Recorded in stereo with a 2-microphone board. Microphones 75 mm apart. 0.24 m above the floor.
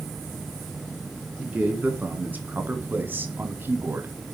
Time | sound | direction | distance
1.4 | a man speaking | 20° right (ahead or behind) | 2.5 m